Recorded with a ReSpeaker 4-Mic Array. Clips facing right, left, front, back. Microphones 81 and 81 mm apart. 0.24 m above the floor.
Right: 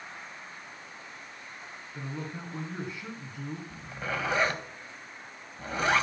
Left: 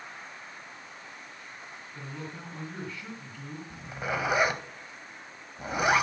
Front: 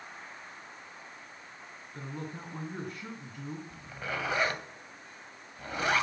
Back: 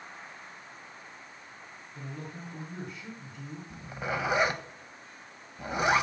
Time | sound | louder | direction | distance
1.9 | a man speaking | right 3 dB, front 2 dB | 20° right | 2.5 m
3.7 | a zipper | left 5 dB, back 7 dB | 145° left | 1.3 m